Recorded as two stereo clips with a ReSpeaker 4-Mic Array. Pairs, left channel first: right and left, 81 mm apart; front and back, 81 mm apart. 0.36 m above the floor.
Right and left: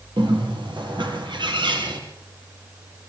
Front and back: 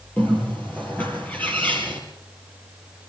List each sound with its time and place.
0.2 s a bird: 70° left, 4 m